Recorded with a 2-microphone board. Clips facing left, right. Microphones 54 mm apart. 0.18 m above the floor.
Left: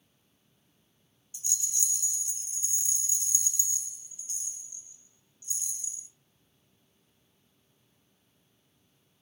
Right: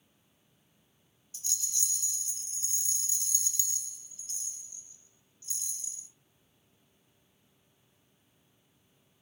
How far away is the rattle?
About 0.6 m.